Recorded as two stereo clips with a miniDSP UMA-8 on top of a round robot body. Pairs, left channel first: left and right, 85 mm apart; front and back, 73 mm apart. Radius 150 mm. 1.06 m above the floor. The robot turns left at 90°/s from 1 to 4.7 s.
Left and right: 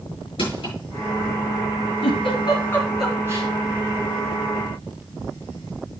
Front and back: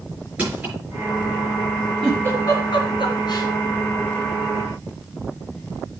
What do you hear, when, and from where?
0.4 s crushing: 105° left, 5.5 m
2.0 s a giggle: 90° left, 2 m; by 3.5 s 45° right, 2 m